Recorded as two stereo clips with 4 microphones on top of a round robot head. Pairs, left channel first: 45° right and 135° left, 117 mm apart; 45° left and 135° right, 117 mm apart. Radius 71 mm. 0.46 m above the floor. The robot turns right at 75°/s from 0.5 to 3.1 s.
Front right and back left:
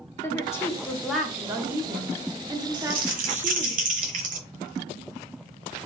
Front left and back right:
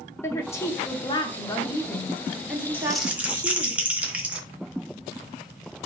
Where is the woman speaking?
5° right, 0.9 m; by 3.7 s 170° right, 0.9 m.